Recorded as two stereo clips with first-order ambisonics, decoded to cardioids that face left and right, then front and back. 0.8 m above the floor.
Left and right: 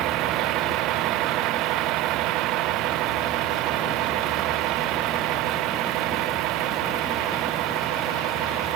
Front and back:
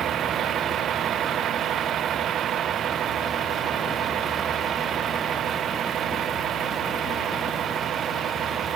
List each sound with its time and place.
0.0 s a vehicle: 125° right